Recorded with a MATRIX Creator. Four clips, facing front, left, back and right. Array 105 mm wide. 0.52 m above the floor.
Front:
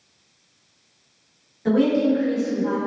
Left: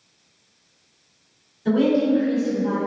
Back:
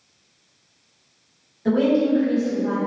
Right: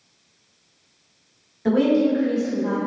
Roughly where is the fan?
I don't hear a fan.